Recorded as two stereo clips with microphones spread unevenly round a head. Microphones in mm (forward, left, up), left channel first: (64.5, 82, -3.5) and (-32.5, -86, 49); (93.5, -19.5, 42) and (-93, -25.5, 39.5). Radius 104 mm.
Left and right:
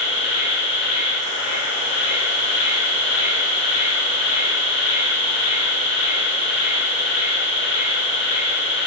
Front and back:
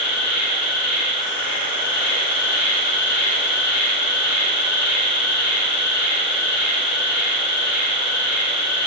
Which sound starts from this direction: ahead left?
An insect, at 0.0 s.